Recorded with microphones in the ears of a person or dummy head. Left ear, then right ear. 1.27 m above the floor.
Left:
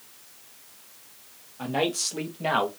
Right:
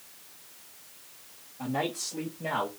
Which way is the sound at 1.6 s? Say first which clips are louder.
Left 5 dB; 45° left (ahead or behind).